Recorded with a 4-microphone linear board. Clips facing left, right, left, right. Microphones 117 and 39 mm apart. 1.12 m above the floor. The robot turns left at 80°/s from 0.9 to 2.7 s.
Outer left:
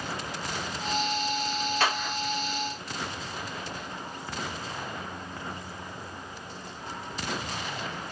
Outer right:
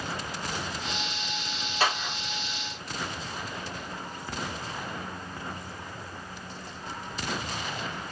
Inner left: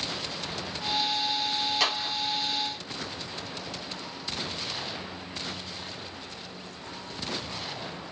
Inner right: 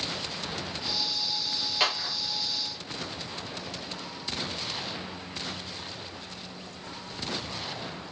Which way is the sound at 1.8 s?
10° right (ahead or behind).